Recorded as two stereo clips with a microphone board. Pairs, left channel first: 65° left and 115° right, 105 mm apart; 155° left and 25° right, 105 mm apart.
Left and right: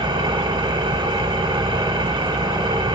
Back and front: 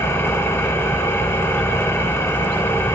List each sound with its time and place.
0.0 s an engine running: 140° right, 1.3 m